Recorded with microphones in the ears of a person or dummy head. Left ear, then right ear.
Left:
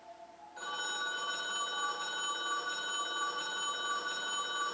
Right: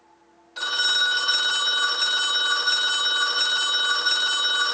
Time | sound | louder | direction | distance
0.6 | a phone ringing | right 16 dB | 60° right (ahead or behind) | 0.6 m